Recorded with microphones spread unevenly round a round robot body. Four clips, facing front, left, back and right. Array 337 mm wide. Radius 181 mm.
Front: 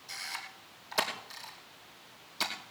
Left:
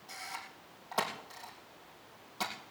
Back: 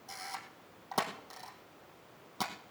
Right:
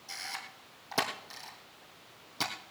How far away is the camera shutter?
About 2.5 m.